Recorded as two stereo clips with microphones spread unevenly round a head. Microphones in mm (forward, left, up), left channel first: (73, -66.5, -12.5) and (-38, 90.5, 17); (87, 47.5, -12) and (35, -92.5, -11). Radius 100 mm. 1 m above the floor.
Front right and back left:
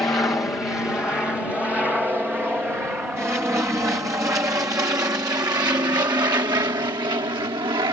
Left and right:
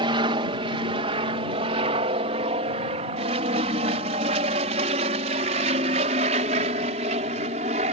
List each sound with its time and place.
0.0 s an aircraft: 125° right; by 7.9 s 165° right